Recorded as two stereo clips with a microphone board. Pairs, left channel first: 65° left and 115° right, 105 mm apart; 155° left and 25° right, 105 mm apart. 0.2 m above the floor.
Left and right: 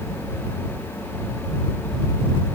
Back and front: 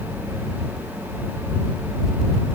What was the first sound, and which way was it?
Only background noise.